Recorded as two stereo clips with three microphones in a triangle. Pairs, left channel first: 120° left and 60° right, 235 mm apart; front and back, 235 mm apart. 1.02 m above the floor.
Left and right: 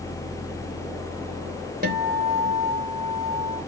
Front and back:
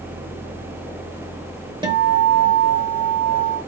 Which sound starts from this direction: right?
A guitar, at 1.8 s.